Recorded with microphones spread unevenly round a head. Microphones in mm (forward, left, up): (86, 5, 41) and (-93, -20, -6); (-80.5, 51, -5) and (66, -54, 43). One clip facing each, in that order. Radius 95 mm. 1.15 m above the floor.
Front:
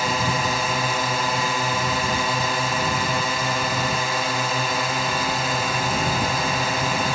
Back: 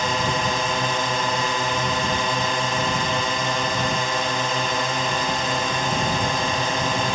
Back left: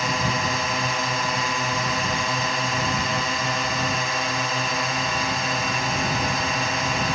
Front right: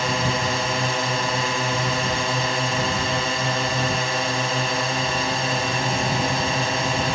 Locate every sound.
0.0 s a drone: 95° right